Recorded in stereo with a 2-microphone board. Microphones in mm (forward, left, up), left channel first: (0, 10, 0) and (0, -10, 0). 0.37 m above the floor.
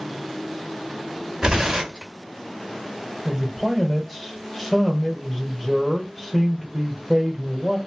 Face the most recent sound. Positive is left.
turn(degrees=15)  # may be behind; listen again after turning